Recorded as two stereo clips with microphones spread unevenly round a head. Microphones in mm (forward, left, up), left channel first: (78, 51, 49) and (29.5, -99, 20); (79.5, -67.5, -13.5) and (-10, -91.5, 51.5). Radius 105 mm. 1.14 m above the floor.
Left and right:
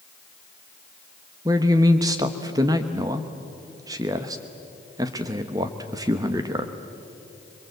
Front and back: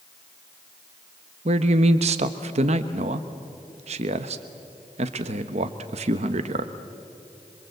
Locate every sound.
1.4 s a man speaking: straight behind, 1.0 m